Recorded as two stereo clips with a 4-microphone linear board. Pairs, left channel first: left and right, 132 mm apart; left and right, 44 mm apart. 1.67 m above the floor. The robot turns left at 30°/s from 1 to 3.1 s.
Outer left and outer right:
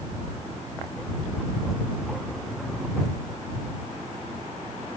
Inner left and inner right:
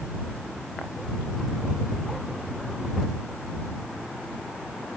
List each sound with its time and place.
Only background noise.